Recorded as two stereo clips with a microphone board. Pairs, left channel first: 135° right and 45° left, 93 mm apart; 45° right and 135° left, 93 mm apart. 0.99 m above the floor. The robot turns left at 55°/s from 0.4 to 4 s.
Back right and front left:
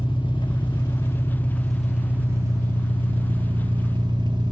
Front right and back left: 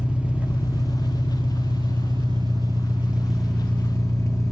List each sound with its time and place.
0.0 s an engine running: 150° right, 0.9 m; by 4.5 s 10° left, 0.9 m